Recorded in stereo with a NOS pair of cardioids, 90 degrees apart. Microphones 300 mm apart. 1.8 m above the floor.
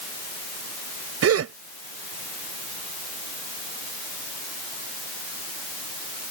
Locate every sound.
1.2 s a gasp: 55° right